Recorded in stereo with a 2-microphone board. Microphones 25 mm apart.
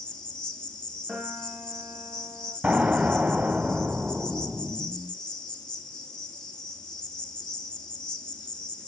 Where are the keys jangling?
No keys jangling in this recording.